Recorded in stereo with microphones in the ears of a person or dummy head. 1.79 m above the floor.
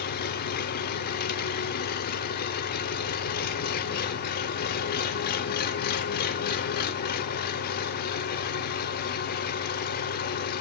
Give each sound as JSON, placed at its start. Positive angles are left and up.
{"t": 0.0, "sound": "an engine running", "side_deg": 55, "distance_m": 0.8}